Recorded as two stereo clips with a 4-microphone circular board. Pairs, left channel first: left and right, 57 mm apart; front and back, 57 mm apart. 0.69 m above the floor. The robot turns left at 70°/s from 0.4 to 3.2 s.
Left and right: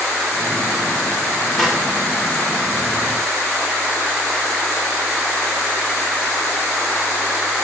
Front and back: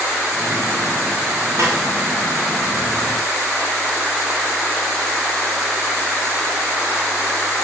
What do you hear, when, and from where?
1.6 s a snare drum: 175° left, 1.9 m; by 1.8 s 160° left, 1.9 m